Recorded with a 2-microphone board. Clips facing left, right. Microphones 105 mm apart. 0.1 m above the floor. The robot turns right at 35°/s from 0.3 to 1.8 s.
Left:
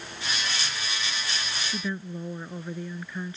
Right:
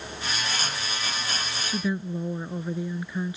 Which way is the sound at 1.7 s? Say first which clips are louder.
Right 6 dB; 10° right (ahead or behind).